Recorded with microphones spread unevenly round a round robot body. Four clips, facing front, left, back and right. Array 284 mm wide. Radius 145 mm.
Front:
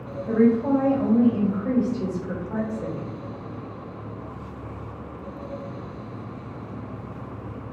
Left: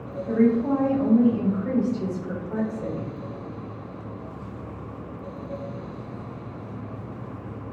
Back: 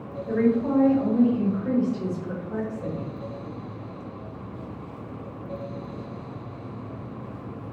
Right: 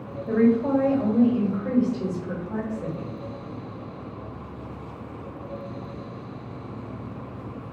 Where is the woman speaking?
85° right, 1.6 m; by 3.1 s 40° left, 1.3 m.